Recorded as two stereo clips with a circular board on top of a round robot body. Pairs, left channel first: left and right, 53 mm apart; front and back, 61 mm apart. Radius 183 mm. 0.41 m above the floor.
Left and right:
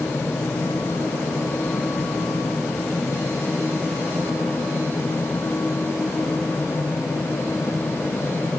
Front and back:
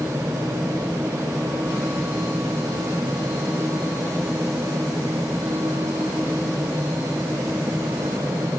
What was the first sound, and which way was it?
Only background noise.